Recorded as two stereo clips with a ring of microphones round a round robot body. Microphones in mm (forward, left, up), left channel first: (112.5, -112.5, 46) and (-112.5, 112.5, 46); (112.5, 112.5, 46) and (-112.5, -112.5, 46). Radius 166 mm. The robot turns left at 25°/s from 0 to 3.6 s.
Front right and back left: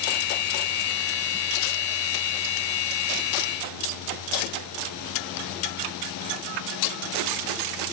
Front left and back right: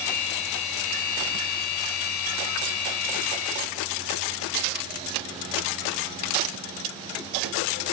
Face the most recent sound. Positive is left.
No sound to turn to.